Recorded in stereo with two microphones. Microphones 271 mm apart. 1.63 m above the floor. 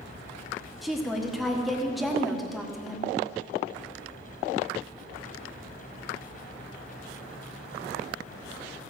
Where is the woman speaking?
Centre (ahead or behind), 1.4 m.